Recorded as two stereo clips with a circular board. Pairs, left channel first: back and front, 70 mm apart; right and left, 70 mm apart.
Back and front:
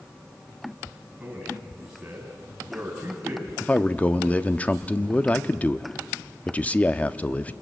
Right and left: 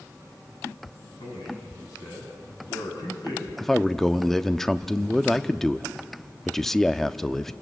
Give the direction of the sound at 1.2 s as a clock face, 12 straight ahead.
3 o'clock.